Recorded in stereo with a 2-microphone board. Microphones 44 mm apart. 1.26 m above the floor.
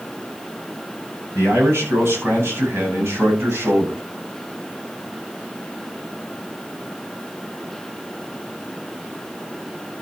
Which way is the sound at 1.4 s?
75° right (ahead or behind).